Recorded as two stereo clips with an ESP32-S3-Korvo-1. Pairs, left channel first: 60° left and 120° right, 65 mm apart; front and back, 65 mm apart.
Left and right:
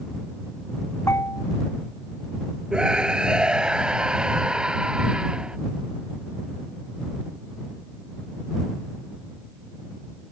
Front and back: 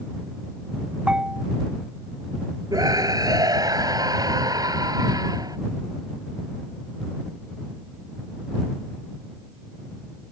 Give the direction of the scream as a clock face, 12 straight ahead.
7 o'clock.